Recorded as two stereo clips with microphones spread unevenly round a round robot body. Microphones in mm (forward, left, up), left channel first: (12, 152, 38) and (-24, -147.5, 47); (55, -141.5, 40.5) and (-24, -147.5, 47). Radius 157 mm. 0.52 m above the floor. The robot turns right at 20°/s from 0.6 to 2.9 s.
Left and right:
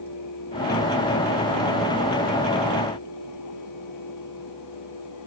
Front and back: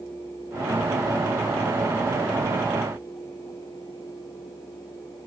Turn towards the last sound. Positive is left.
No sound to turn to.